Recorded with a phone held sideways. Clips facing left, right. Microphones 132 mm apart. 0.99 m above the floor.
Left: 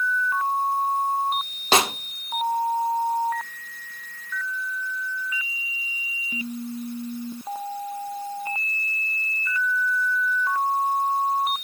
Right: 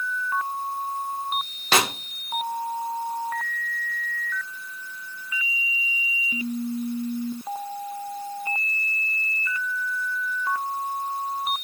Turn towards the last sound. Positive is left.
turn(degrees=25)  # may be behind; listen again after turning